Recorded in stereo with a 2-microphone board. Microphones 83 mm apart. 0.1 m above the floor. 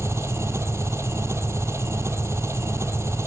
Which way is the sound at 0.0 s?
35° right (ahead or behind).